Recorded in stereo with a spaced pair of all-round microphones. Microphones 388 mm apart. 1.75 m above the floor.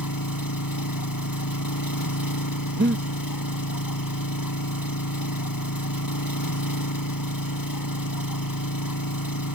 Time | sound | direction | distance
0.0 | an engine running | 60° left (ahead or behind) | ?
2.8 | breathing | 30° right (ahead or behind) | ?